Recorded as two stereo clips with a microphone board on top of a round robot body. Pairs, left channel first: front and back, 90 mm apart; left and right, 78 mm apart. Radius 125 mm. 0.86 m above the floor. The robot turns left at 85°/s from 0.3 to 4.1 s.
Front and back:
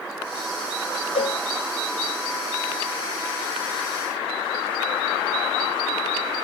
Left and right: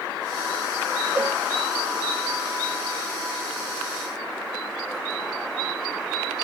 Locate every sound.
1.1 s a cowbell: 15° right, 0.7 m; by 1.4 s 35° right, 0.7 m